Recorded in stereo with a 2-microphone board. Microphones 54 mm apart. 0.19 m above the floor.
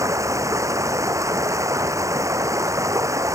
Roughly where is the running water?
Right.